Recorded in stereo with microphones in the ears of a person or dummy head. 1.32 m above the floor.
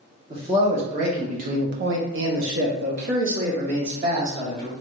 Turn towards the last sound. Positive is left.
turn(degrees=-35)  # may be behind; listen again after turning